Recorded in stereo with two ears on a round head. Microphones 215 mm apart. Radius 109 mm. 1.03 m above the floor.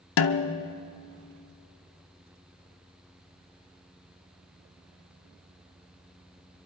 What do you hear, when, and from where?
0.2 s a snare drum: 60° left (ahead or behind), 0.7 m